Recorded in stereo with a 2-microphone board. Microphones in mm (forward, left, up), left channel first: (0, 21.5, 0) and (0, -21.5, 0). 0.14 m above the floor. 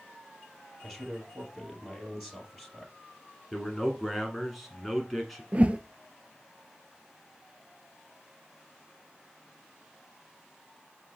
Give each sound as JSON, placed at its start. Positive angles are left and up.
{"t": 0.8, "sound": "a man speaking", "side_deg": -5, "distance_m": 2.5}
{"t": 3.5, "sound": "a man speaking", "side_deg": 0, "distance_m": 1.3}
{"t": 5.5, "sound": "a whoosh", "side_deg": -30, "distance_m": 0.5}